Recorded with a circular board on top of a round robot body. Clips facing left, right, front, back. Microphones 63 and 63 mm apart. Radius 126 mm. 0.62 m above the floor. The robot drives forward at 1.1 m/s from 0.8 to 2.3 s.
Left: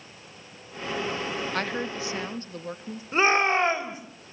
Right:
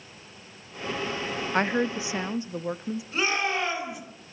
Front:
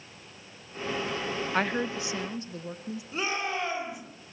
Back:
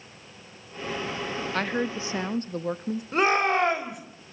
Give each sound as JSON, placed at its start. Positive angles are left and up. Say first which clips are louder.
{"t": 1.5, "sound": "a woman speaking", "louder": "right 4 dB, back 1 dB", "azimuth_deg": -60, "distance_m": 0.8}
{"t": 3.1, "sound": "a shout", "louder": "left 6 dB, back 9 dB", "azimuth_deg": 145, "distance_m": 3.5}